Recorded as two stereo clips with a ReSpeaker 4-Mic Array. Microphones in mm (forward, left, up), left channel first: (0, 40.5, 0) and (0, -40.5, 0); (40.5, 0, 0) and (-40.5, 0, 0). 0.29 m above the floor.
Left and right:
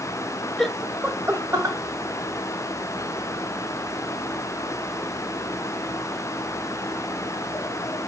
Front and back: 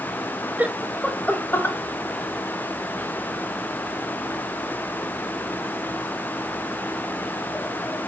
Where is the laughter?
165° left, 1.1 m; by 1.8 s 50° right, 1.7 m.